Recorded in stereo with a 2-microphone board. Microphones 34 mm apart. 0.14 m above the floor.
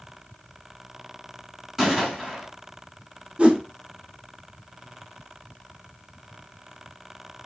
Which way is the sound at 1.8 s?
15° right (ahead or behind).